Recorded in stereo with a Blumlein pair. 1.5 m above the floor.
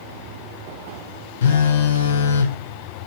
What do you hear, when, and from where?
1.4 s a phone buzzing: 60° left, 0.8 m